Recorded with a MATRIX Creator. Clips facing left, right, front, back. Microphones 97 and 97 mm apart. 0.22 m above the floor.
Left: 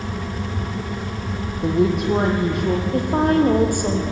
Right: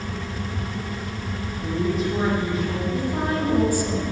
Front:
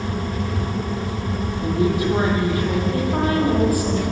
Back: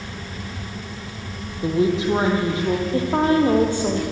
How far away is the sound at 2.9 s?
About 6 m.